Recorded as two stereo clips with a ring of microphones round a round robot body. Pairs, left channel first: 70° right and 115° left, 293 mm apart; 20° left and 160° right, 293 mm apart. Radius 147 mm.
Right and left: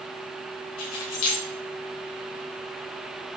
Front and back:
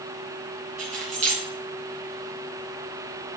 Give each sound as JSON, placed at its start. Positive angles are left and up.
{"t": 0.8, "sound": "keys jangling", "azimuth_deg": -90, "distance_m": 3.5}